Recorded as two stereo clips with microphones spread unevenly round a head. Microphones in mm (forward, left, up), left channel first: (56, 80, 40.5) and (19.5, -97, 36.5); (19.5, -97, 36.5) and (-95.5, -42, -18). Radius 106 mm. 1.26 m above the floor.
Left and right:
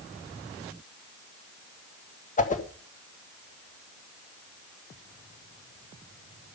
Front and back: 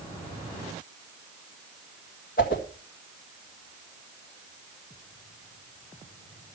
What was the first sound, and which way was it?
A whoosh, 30° left.